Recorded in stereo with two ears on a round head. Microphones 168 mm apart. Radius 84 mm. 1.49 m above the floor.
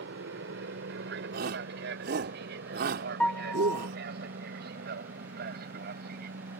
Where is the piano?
5° left (ahead or behind).